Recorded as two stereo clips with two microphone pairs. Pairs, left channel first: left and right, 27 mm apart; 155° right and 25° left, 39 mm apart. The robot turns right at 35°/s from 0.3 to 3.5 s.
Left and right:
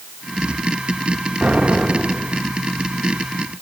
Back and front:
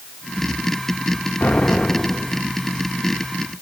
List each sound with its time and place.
1.4 s an explosion: 105° right, 1.2 m; by 2.4 s 70° right, 1.2 m